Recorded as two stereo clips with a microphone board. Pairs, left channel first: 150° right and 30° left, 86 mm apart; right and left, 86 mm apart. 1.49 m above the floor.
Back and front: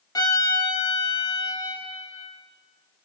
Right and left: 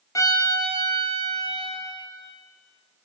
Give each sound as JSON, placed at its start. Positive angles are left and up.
{"t": 0.1, "sound": "a violin", "azimuth_deg": -125, "distance_m": 0.6}